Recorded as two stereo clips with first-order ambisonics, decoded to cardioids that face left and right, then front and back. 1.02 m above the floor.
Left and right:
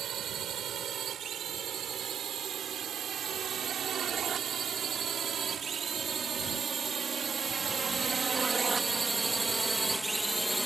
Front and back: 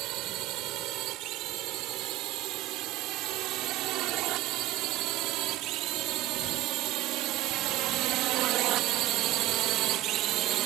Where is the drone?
145° right; by 10.7 s straight behind.